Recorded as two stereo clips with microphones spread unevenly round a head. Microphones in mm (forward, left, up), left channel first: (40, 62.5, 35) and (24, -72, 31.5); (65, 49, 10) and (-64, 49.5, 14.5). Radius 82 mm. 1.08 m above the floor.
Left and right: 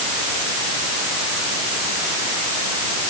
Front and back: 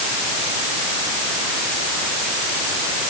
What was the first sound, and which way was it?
Only background noise.